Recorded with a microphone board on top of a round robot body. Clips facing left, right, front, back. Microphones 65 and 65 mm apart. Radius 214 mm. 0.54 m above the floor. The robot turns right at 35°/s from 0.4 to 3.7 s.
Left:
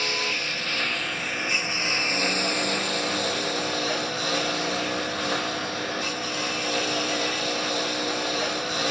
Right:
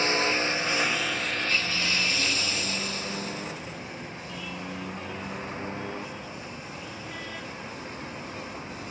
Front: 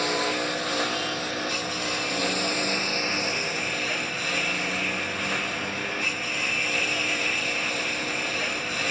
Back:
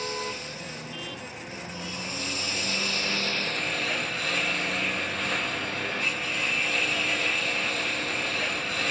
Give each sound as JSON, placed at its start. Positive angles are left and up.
{"t": 0.0, "sound": "a lawn mower", "azimuth_deg": -25}